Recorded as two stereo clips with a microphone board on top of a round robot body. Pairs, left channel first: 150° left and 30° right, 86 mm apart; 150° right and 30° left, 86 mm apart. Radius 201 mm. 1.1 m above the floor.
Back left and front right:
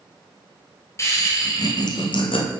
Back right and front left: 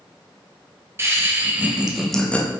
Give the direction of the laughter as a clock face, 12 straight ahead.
9 o'clock.